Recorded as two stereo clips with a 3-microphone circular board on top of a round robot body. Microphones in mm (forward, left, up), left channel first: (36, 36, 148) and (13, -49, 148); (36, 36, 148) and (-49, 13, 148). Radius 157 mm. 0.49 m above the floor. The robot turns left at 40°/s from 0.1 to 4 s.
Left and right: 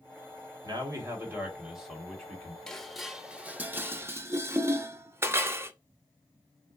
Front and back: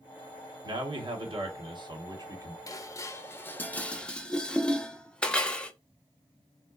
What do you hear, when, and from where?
0.6 s a man speaking: 145° right, 1.4 m; by 2.6 s 140° left, 1.4 m
2.7 s dishes clattering: 5° right, 0.7 m; by 5.7 s 60° right, 0.7 m